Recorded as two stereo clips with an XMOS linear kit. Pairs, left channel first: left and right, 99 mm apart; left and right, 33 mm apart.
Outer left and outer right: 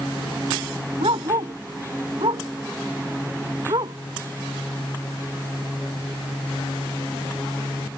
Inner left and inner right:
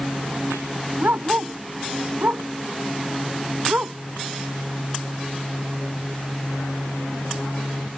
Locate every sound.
1.0 s a dog barking: 75° right (ahead or behind); by 4.0 s 60° right (ahead or behind)